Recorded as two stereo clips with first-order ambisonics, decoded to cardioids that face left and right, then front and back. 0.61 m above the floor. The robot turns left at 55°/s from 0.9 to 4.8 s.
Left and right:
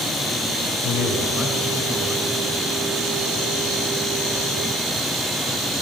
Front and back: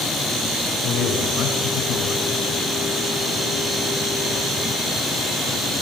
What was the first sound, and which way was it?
A man speaking, 55° left.